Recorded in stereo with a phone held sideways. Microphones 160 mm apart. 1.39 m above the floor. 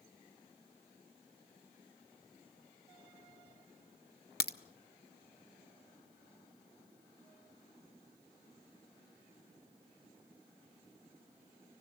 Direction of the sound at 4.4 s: 85° left.